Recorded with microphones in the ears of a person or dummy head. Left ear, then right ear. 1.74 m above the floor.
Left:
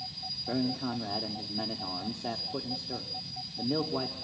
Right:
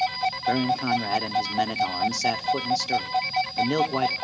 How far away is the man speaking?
About 1.0 m.